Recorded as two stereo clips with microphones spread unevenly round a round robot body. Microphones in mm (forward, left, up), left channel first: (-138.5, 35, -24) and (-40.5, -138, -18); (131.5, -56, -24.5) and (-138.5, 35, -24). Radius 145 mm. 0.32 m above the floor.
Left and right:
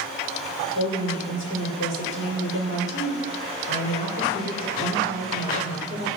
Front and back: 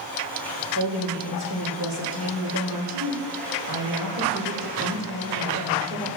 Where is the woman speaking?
135° left, 6 m.